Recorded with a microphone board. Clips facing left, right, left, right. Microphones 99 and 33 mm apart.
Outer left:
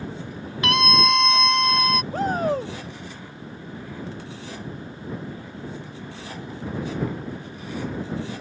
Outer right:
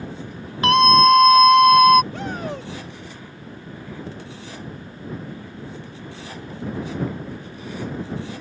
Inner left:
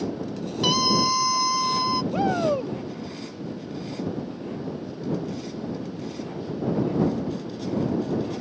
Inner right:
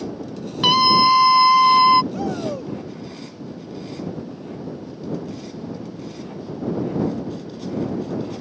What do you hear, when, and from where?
0.6 s a scream: 35° right (ahead or behind); by 2.0 s 60° right (ahead or behind)
2.1 s a shout: 40° left (ahead or behind)